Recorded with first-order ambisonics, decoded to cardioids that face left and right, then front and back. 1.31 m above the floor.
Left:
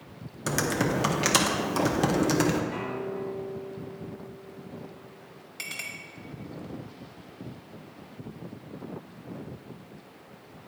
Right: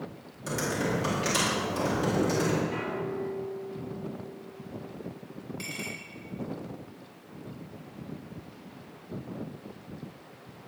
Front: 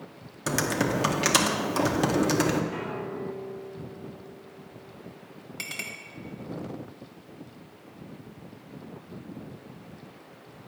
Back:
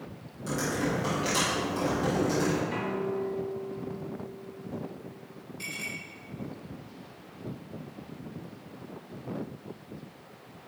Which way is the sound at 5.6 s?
35° left.